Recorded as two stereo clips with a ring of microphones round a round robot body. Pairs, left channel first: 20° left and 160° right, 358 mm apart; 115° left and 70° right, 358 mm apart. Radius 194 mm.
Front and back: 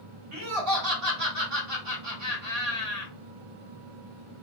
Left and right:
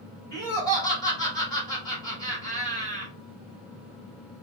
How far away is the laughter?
About 2 m.